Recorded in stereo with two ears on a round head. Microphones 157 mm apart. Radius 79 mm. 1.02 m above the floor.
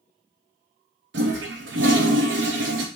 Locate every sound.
1.1 s a toilet flushing: 75° right (ahead or behind), 0.7 m